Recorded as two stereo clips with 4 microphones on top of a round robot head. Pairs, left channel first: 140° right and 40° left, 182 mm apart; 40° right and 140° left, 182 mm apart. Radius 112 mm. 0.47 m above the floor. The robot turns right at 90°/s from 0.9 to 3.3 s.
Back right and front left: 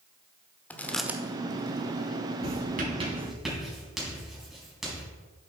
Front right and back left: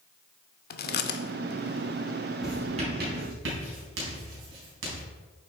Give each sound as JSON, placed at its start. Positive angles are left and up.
{"t": 0.7, "sound": "chewing", "azimuth_deg": -60, "distance_m": 0.8}
{"t": 2.4, "sound": "writing", "azimuth_deg": 50, "distance_m": 4.0}